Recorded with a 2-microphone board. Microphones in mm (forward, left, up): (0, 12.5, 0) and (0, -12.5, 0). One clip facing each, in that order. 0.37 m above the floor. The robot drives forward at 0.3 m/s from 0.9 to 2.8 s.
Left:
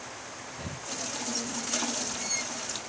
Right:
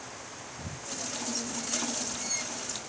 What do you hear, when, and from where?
0.6 s breathing: 35° left (ahead or behind)